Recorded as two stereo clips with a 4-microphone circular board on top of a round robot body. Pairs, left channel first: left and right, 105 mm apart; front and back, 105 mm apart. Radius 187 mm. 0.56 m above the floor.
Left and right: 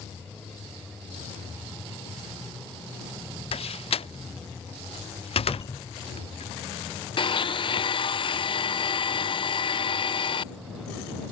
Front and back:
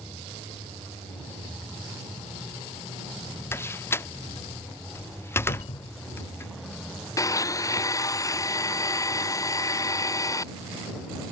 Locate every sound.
3.5 s a door slam: 65° left
5.5 s a cupboard door: 30° left
7.2 s a blender: 55° left